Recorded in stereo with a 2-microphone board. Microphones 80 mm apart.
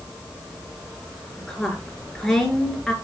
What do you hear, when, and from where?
1.4 s a woman speaking: 5° left (ahead or behind), 3 m